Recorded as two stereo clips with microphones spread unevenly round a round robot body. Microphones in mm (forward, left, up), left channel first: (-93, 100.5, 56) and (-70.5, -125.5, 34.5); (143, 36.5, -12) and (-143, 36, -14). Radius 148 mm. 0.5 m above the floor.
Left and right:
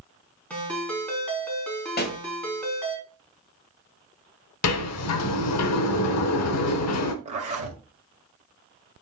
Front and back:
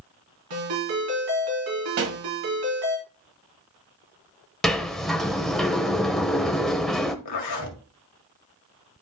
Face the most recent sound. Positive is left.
turn(degrees=-25)